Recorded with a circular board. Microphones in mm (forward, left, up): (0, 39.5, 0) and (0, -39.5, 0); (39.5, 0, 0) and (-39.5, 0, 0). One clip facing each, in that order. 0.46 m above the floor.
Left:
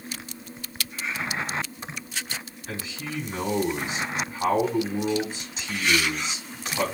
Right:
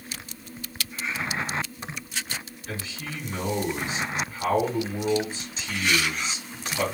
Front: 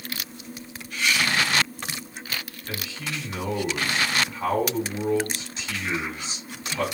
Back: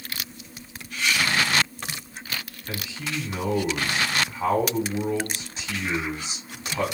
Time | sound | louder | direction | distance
2.7 | a man speaking | left 1 dB, back 1 dB | 135° left | 1.4 m